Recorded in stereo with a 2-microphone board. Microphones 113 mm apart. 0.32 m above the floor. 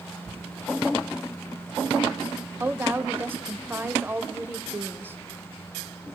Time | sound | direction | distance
2.6 | a woman speaking | 20° right (ahead or behind) | 0.9 m